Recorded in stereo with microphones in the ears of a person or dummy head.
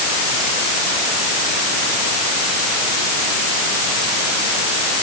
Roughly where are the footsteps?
I don't hear footsteps.